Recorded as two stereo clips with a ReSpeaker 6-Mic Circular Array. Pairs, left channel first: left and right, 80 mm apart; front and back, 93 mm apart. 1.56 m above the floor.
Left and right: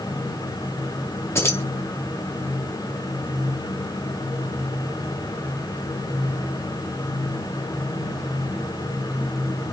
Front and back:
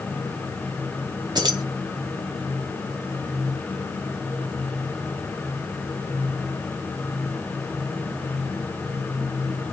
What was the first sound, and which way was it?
Keys jangling, 145° left.